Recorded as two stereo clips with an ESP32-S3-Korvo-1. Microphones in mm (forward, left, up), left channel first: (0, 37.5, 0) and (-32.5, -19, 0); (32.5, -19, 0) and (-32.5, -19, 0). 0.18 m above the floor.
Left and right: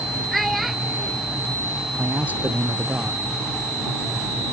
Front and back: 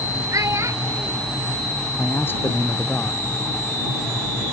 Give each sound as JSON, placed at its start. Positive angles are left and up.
{"t": 0.3, "sound": "a child speaking", "azimuth_deg": 155}
{"t": 2.0, "sound": "a man speaking", "azimuth_deg": -55}